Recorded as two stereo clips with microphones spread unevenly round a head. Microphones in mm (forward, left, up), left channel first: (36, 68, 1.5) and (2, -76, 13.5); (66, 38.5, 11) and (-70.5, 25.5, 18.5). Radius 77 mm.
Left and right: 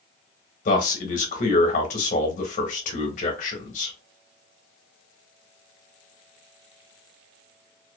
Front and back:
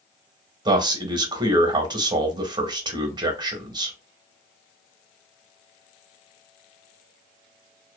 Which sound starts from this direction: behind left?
A man speaking, at 0.7 s.